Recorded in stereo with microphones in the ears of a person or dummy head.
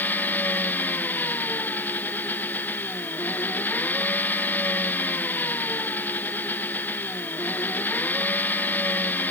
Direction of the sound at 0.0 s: 10° left (ahead or behind).